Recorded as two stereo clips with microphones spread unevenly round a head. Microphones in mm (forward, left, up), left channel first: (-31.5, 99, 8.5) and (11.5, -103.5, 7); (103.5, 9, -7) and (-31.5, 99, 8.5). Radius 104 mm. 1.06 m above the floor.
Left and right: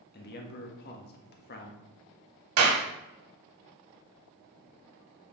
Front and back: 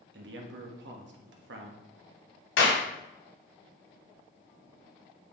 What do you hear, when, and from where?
0.1 s a man speaking: 145° left, 1.4 m
2.6 s a clap: 60° right, 2 m